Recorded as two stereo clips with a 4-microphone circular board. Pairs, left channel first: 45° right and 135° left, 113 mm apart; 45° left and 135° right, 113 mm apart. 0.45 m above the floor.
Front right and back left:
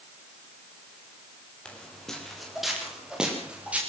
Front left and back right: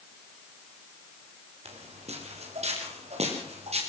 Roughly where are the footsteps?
Behind right.